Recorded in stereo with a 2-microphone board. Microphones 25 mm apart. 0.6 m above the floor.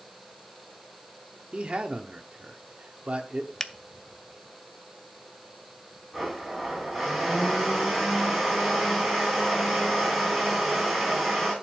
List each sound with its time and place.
1.5 s a man speaking: 55° right (ahead or behind), 1.1 m
3.6 s a finger snap: 20° left (ahead or behind), 0.5 m
6.1 s a blender: 5° left (ahead or behind), 7 m